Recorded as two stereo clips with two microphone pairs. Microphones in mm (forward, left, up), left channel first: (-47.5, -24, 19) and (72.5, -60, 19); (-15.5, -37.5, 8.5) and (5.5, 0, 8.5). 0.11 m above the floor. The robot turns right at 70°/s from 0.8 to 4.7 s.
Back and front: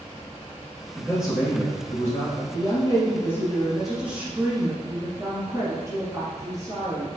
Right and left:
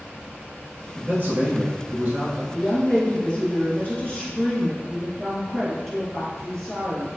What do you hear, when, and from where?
0.9 s a man speaking: 45° left, 1.5 m; by 2.4 s 145° left, 1.5 m
2.5 s a woman speaking: 165° left, 1.7 m; by 7.1 s 45° right, 1.7 m